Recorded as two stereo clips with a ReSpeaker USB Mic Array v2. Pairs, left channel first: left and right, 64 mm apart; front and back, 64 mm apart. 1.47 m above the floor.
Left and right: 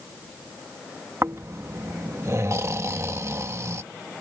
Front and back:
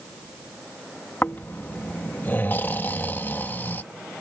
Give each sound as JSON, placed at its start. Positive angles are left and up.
{"t": 1.2, "sound": "snoring", "azimuth_deg": -55}